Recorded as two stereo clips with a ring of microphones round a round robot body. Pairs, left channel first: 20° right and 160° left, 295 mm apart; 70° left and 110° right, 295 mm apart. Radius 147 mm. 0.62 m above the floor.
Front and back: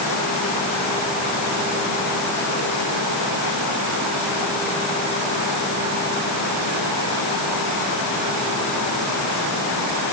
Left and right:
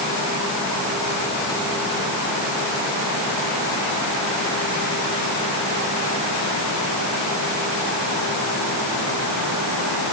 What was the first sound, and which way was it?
Only background noise.